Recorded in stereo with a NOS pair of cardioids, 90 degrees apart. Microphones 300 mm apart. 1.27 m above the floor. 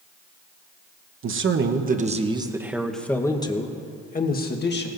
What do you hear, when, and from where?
1.2 s a man speaking: 45° right, 1.2 m; by 4.9 s 35° left, 1.6 m